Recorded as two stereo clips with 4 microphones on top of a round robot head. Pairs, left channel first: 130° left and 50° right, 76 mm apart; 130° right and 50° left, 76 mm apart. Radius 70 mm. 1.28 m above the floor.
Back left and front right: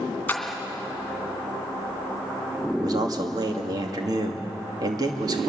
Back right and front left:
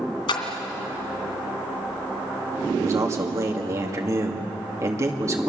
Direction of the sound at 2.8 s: 5° right.